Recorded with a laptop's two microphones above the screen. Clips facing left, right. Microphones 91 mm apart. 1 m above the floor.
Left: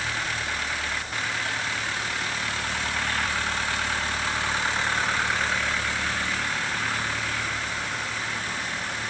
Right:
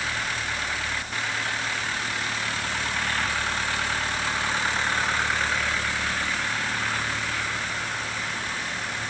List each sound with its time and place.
Only background noise.